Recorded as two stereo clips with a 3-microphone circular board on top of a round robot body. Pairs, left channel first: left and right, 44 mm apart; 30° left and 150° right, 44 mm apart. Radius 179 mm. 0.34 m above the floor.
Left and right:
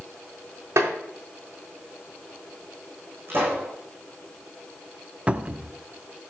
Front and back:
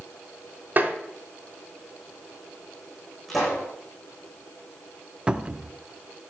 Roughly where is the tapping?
Right.